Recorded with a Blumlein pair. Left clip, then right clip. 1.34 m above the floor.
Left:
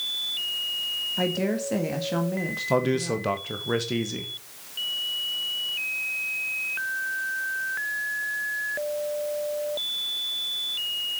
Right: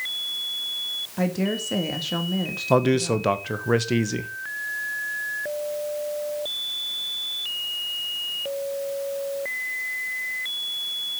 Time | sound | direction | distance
1.2 | a woman speaking | 5° right | 1.8 m
2.7 | a man speaking | 15° right | 1.2 m